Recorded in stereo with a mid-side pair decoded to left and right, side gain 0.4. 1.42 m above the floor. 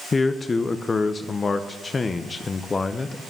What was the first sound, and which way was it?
A man speaking, 35° left.